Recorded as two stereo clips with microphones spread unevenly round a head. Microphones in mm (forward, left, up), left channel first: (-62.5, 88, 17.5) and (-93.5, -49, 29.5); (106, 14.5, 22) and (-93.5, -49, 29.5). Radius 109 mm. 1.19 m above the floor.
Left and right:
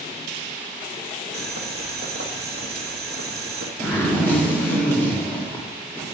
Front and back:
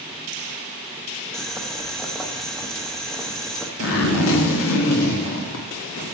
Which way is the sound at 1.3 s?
70° right.